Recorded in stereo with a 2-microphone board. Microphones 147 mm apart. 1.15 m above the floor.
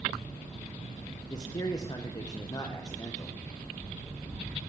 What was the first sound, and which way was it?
A man speaking, 30° left (ahead or behind).